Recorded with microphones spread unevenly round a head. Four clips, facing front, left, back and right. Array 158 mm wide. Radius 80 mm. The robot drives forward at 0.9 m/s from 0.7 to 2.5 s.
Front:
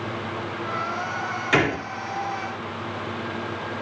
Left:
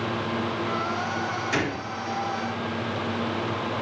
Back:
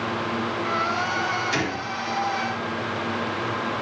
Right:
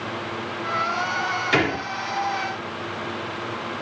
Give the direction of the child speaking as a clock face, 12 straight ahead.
No child speaking in this recording.